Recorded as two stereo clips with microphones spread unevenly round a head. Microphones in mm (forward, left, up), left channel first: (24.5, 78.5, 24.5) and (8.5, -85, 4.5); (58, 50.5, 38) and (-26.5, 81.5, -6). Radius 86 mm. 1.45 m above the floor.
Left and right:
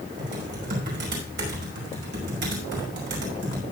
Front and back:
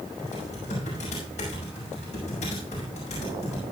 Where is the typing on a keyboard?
65° right, 5.5 m.